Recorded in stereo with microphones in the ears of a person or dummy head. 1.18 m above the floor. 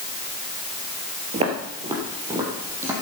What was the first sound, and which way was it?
Footsteps, 35° right (ahead or behind).